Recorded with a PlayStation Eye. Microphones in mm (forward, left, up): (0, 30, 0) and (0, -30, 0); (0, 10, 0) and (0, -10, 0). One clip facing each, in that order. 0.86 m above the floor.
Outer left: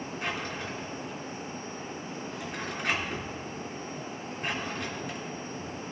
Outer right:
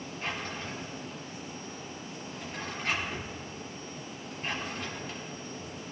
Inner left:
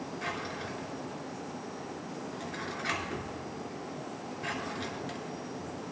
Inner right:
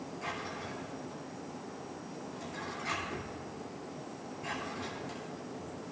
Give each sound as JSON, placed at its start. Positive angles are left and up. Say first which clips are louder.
{"t": 0.2, "sound": "a drawer", "louder": "outer left 1 dB, inner left 2 dB", "side_deg": 70, "distance_m": 3.0}